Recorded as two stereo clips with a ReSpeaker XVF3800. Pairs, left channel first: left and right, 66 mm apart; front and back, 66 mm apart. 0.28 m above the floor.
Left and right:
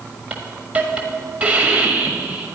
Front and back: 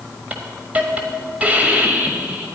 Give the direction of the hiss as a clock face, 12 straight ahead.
5 o'clock.